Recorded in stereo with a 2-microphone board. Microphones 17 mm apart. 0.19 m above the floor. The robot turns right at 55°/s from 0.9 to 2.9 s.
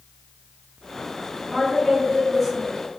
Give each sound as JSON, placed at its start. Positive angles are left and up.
{"t": 1.5, "sound": "a woman speaking", "azimuth_deg": -25, "distance_m": 1.4}